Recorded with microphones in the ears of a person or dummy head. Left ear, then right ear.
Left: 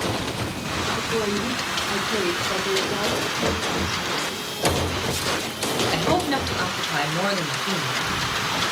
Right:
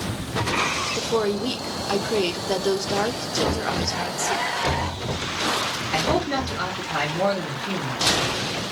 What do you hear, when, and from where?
1.0 s a woman speaking: 85° right, 0.5 m
3.4 s knocking: 55° left (ahead or behind), 1.1 m
5.9 s a man speaking: 40° left (ahead or behind), 1.0 m